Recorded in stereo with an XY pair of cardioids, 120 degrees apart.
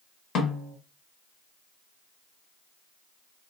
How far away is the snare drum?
About 1.3 m.